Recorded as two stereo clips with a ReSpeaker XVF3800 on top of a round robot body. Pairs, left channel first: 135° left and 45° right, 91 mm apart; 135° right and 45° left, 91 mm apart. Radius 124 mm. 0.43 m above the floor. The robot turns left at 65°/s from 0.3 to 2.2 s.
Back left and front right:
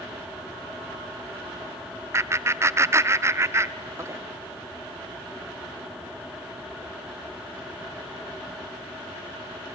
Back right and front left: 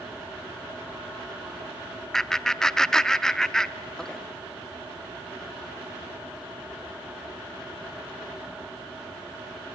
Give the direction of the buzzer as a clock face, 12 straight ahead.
I don't hear a buzzer.